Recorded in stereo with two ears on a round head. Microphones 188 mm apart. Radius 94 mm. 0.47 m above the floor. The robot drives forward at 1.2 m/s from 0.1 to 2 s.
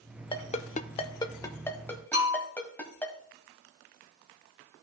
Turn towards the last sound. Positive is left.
turn(degrees=-35)  # may be behind; listen again after turning